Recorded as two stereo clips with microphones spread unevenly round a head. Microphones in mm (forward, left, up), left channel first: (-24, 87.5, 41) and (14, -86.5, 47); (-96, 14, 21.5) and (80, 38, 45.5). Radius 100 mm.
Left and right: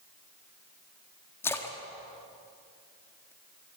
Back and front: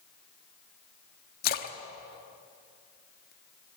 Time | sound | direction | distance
1.4 | a splash | 175° left | 1.3 m